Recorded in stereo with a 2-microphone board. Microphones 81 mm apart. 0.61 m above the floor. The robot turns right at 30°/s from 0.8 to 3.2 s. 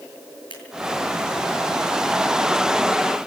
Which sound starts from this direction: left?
Scissors, at 0.5 s.